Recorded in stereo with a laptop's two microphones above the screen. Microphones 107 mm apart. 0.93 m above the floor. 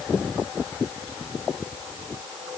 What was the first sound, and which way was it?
Only background noise.